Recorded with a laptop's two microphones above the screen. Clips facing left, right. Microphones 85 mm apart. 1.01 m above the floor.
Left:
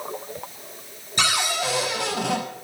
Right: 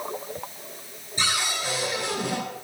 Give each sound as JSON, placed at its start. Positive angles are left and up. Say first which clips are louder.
{"t": 1.2, "sound": "a cupboard door", "louder": "left 4 dB", "side_deg": 85, "distance_m": 5.5}